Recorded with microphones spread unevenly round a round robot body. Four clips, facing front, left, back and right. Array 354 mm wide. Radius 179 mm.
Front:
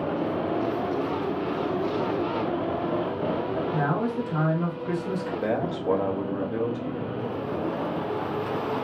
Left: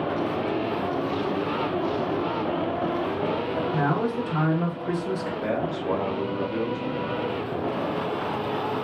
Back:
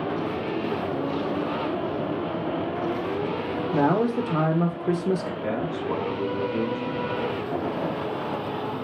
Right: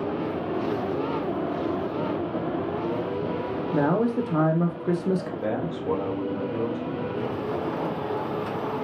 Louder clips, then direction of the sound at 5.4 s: Left 1 dB, front 1 dB; 5° right.